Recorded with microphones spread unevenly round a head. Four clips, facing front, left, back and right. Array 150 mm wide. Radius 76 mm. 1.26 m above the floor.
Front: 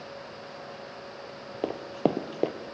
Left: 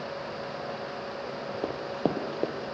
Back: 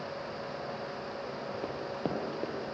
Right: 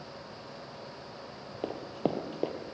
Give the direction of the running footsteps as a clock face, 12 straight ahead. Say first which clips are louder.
Left 2 dB, front 10 dB; 12 o'clock.